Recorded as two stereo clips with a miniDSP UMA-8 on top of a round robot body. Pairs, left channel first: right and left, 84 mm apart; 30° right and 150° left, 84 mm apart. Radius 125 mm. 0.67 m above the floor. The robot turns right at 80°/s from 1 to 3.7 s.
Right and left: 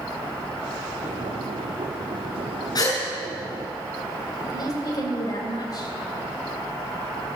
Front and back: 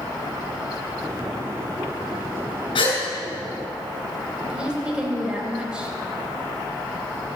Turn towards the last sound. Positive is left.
turn(degrees=-130)